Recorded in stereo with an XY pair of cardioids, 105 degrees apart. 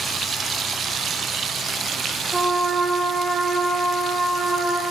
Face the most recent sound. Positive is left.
turn(degrees=-15)